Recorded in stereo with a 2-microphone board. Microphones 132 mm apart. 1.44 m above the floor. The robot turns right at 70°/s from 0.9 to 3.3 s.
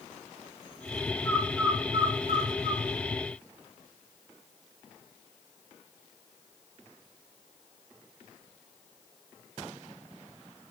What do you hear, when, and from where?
1.2 s a bird: 20° left (ahead or behind), 3 m; by 2.8 s 70° right (ahead or behind), 3 m